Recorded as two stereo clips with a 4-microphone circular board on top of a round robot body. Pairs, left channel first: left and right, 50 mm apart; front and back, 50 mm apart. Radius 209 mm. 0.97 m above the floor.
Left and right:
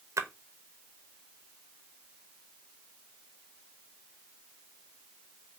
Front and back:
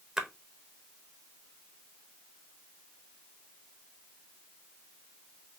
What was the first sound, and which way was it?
A splash, 95° right.